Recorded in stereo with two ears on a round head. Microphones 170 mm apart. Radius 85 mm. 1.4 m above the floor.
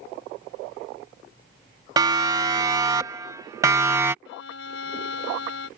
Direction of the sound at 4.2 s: 75° left (ahead or behind).